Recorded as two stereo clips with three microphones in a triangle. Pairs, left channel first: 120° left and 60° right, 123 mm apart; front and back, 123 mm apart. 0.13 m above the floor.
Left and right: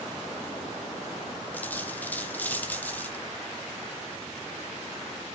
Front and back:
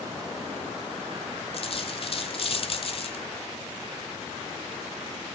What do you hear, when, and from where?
1.5 s a dropped coin: 45° left, 0.9 m